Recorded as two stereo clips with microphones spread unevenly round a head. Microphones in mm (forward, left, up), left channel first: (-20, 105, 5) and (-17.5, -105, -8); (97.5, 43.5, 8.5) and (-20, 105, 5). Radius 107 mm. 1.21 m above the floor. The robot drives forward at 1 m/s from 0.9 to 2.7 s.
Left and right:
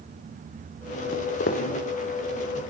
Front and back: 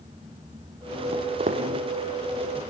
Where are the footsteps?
125° left, 2.5 m; by 1.7 s 135° left, 2.5 m.